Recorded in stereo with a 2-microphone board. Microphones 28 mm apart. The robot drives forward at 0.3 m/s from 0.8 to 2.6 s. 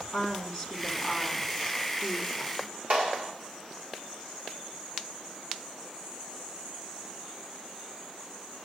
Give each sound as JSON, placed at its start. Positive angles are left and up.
{"t": 0.1, "sound": "a woman speaking", "side_deg": -20, "distance_m": 2.0}
{"t": 2.9, "sound": "a clap", "side_deg": -80, "distance_m": 2.0}